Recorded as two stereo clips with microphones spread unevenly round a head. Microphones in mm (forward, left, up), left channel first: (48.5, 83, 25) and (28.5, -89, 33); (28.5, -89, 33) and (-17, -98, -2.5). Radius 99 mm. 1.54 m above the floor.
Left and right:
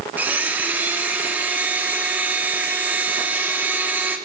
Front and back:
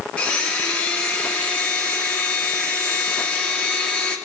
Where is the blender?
20° right, 1.8 m.